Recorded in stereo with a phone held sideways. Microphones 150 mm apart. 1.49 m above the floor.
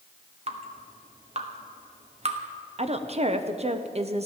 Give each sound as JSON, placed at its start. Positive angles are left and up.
{"t": 0.5, "sound": "dripping", "side_deg": -45, "distance_m": 1.3}
{"t": 2.8, "sound": "a woman speaking", "side_deg": -45, "distance_m": 0.9}